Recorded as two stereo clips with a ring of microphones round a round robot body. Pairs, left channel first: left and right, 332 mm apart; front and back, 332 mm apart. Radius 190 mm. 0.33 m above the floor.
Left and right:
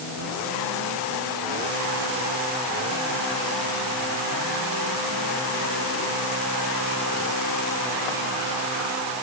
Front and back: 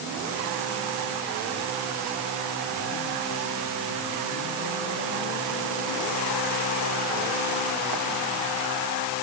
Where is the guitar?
No guitar in this recording.